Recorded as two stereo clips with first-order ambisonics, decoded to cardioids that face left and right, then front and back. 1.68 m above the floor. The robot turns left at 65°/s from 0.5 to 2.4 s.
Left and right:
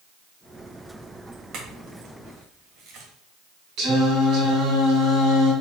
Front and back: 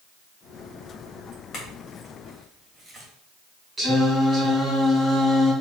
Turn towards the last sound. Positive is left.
turn(degrees=-115)